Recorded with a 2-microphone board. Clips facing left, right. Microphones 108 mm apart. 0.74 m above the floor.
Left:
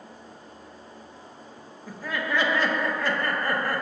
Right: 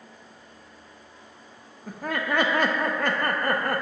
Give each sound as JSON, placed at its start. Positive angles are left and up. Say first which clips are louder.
{"t": 1.9, "sound": "laughter", "louder": "right 2 dB", "side_deg": -55, "distance_m": 0.9}